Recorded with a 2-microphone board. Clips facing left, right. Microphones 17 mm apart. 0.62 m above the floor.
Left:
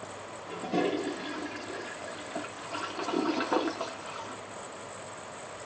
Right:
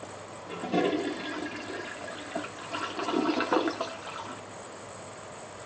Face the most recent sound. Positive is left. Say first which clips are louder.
# right 2 dB
turn(degrees=-20)  # may be behind; listen again after turning